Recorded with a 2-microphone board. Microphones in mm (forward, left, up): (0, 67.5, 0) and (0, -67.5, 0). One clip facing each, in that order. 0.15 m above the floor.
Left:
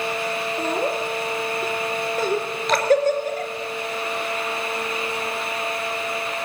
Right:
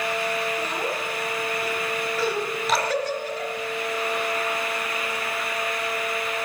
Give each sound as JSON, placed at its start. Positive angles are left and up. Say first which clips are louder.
{"t": 0.6, "sound": "laughter", "louder": "left 5 dB", "side_deg": 50, "distance_m": 3.0}
{"t": 2.7, "sound": "dripping", "louder": "left 3 dB", "side_deg": -5, "distance_m": 2.5}